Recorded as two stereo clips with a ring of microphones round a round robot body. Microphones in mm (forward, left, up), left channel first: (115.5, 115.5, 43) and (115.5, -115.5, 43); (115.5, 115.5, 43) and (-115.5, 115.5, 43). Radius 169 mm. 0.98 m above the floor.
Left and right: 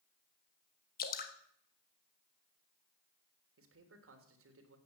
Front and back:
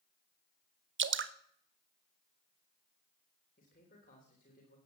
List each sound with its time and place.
1.0 s dripping: 145° left, 1.0 m
3.6 s a man speaking: 65° right, 3.5 m